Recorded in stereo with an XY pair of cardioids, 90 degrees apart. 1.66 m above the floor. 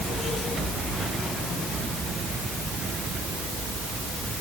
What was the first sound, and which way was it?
Only background noise.